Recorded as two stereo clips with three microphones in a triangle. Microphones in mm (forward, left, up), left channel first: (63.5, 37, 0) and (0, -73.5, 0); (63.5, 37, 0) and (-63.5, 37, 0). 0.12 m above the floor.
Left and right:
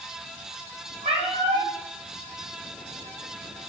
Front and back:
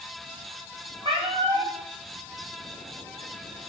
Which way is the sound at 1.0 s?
130° right.